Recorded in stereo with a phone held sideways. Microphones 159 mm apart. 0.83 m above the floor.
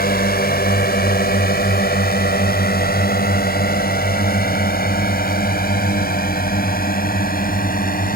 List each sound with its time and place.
0.0 s a drone: 75° left (ahead or behind); by 8.2 s 65° left (ahead or behind)